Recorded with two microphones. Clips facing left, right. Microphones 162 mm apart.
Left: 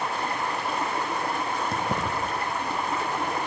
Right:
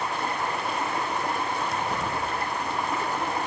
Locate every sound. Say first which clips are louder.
1.7 s keys jangling: left 1 dB; 50° left (ahead or behind), 3 m